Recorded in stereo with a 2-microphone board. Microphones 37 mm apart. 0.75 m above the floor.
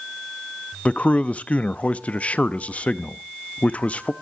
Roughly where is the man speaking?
Left.